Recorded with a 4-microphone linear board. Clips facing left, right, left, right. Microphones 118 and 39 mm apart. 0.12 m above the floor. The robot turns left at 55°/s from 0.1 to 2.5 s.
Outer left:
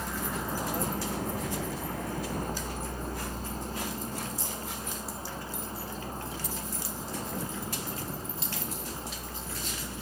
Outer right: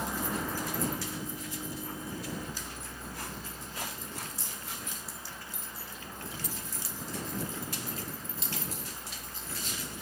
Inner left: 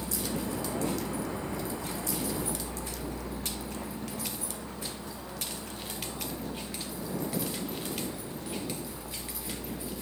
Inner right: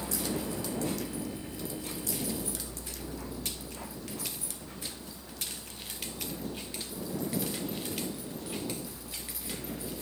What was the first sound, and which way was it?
A vehicle, 10° right (ahead or behind).